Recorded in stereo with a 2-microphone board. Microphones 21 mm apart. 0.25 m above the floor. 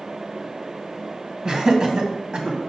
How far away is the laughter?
About 1.9 m.